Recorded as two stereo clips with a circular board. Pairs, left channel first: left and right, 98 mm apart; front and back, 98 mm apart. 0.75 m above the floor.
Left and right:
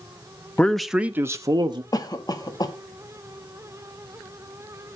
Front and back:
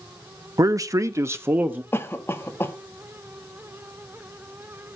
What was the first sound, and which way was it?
A man speaking, 160° left.